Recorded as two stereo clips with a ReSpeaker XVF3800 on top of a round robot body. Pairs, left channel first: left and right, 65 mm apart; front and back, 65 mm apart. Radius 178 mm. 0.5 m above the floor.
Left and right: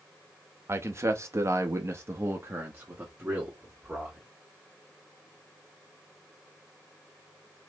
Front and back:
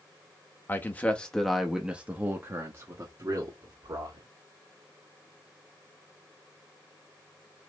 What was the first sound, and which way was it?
A man speaking, 50° right.